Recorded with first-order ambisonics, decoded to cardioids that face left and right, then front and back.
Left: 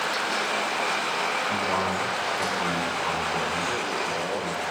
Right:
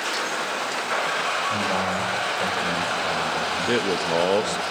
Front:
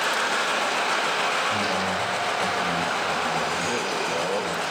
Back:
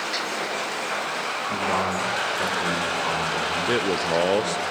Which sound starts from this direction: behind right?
A man speaking, at 3.7 s.